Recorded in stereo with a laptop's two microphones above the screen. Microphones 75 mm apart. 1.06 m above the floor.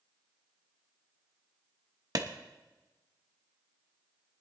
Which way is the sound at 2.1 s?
55° right (ahead or behind).